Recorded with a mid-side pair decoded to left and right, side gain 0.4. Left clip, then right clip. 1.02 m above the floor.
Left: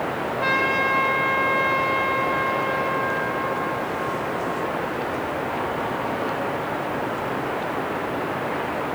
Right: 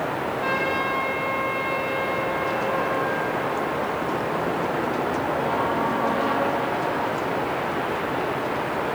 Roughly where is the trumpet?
Ahead left.